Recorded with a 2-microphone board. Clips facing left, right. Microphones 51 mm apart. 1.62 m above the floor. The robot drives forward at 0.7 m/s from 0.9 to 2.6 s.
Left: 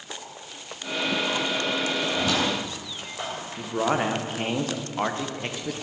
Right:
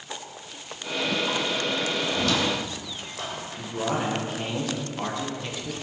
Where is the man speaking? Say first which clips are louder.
Left 4 dB; 45° left (ahead or behind), 1.3 m.